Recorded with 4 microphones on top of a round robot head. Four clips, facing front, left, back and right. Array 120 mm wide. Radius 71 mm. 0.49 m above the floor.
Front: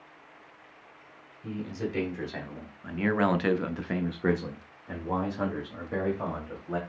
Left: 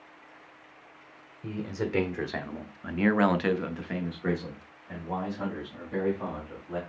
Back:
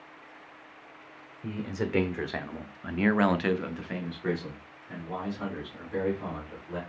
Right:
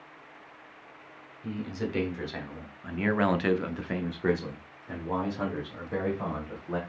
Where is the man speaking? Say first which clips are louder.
Left 1 dB, back 1 dB; 145° left, 1.7 m; by 6.8 s 35° right, 2.5 m.